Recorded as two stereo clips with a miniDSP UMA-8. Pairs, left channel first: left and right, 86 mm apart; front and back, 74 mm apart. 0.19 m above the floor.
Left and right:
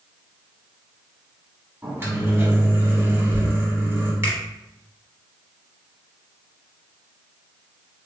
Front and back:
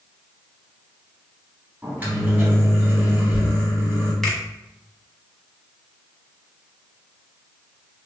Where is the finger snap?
80° right, 1.0 m.